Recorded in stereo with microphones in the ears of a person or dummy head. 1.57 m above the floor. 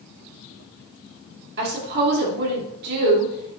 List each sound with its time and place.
1.6 s a woman speaking: 55° right (ahead or behind), 4.5 m